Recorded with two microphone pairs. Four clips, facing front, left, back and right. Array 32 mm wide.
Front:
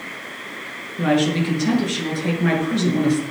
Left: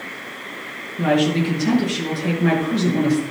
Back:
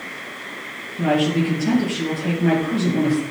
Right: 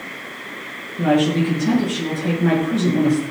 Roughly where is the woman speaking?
Ahead left.